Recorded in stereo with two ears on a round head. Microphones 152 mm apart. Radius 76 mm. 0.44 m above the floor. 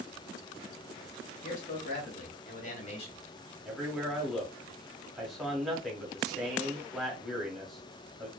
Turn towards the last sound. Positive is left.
turn(degrees=0)  # may be behind; listen again after turning